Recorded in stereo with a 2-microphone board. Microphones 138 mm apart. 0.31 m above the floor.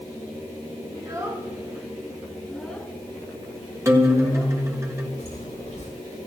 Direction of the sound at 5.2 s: 50° left (ahead or behind).